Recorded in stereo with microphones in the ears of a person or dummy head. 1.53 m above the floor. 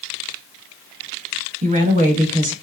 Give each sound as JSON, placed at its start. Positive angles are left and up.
{"t": 1.6, "sound": "a woman speaking", "side_deg": -35, "distance_m": 0.9}